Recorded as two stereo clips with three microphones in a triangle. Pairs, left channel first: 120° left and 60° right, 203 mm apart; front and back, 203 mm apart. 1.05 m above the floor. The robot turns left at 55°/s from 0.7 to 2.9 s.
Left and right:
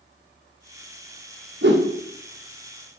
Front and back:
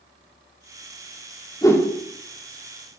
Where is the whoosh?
70° right, 1.3 m; by 1.9 s 85° right, 1.3 m.